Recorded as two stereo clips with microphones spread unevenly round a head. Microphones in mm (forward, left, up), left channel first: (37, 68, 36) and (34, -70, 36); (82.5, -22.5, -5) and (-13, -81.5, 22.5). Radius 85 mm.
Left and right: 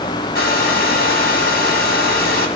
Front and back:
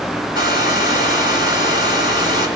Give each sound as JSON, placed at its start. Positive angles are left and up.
{"t": 0.3, "sound": "a hair dryer", "azimuth_deg": 80, "distance_m": 3.0}